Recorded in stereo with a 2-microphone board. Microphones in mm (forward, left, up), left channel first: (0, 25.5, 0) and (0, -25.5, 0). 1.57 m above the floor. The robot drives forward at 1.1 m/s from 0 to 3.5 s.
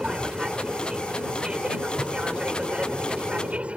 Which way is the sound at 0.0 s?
15° right (ahead or behind).